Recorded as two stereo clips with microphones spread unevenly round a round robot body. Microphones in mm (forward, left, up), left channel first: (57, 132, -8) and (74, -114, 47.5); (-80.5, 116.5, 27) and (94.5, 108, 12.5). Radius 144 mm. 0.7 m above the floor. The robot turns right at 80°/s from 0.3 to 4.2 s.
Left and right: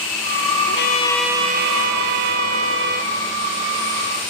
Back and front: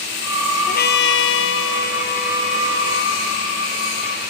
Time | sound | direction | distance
0.7 | a trumpet | 140° left | ?